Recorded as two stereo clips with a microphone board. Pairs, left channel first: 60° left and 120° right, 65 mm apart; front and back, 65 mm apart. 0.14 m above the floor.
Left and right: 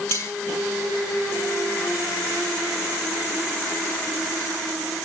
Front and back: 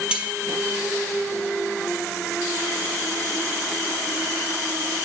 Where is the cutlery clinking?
105° left, 2 m.